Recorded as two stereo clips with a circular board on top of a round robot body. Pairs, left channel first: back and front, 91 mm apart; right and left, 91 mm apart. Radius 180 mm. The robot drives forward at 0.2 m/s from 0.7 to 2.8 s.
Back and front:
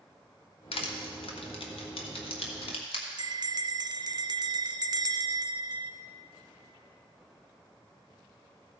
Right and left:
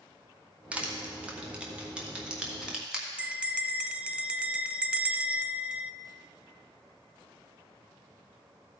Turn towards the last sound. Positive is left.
turn(degrees=15)